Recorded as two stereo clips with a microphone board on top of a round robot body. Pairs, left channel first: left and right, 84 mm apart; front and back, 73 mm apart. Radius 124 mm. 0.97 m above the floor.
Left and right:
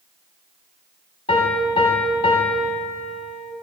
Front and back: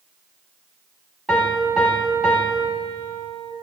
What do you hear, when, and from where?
1.3 s a piano: 100° left, 1.4 m